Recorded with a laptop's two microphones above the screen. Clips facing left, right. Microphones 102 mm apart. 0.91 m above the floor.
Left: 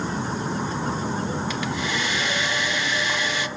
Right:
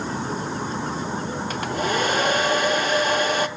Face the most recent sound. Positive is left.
turn(degrees=-45)  # may be behind; listen again after turning